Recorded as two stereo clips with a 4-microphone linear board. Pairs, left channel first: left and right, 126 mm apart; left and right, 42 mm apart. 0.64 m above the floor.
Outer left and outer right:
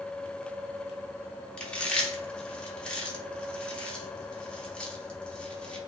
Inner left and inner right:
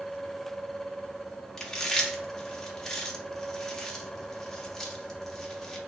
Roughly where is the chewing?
Centre.